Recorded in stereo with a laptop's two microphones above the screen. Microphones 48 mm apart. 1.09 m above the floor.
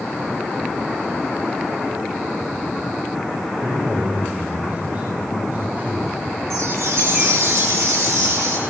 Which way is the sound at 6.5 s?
70° right (ahead or behind).